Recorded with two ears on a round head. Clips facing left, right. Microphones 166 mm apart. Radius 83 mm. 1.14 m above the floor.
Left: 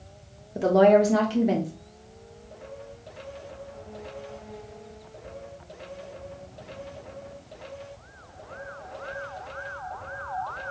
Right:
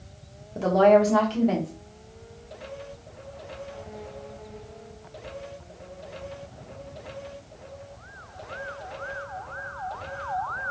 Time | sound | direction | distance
0.6 | a woman speaking | 15° left (ahead or behind) | 0.6 m